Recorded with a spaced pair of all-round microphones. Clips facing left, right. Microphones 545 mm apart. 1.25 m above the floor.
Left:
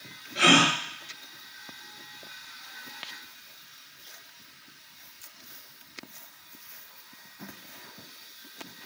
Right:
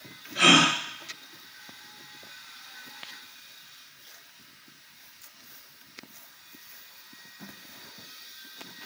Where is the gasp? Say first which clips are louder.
Even; 20° right (ahead or behind), 1.0 m.